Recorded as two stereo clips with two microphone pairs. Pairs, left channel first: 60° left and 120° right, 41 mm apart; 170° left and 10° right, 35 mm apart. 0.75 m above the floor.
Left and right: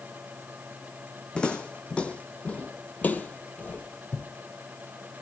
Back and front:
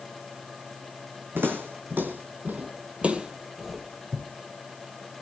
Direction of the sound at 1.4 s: 10° right.